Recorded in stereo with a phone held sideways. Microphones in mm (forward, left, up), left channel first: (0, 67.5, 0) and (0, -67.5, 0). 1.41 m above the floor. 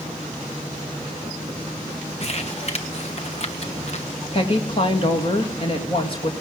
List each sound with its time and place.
2.2 s crumpling: 45° left (ahead or behind), 1.1 m
4.3 s a woman speaking: 35° left (ahead or behind), 2.5 m